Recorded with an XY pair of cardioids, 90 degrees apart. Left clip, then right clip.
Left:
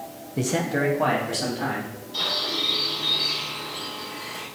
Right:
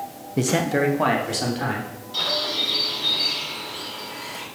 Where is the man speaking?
30° right, 0.8 m; by 1.9 s 45° right, 3 m.